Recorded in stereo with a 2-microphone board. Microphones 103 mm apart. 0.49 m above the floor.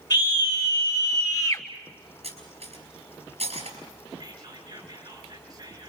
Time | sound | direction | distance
0.1 | a scream | 40° left (ahead or behind) | 2.5 m
2.2 | cutlery clinking | 85° right | 5 m
4.2 | whispering | 40° right (ahead or behind) | 8 m